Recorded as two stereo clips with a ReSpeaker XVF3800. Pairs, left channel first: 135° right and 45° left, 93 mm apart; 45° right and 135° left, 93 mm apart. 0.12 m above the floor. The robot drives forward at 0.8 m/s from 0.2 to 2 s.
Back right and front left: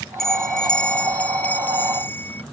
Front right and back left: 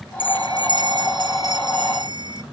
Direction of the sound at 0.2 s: 140° left.